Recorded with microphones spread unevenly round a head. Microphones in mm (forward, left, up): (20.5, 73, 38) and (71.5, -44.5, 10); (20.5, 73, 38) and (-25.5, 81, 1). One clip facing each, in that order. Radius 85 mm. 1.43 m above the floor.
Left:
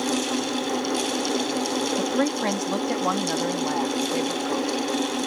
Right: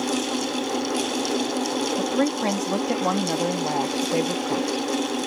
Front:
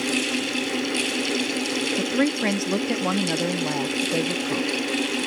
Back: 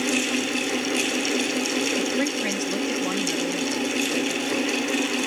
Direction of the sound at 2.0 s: 25° left.